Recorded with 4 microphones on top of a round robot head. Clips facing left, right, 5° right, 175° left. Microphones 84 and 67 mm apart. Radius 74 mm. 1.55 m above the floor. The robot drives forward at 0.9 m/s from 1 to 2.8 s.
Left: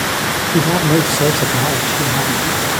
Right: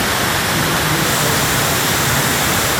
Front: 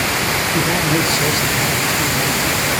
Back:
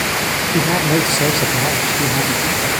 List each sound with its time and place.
0.5 s a man speaking: 105° left, 1.2 m; by 2.7 s 150° left, 2 m